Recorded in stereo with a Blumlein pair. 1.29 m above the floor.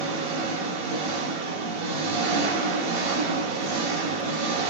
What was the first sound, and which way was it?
An engine running, 55° right.